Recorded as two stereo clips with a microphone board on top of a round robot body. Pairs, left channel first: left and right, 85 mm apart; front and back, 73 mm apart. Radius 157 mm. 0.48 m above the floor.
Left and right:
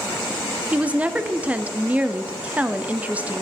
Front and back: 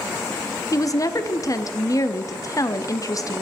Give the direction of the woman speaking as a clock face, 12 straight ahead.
1 o'clock.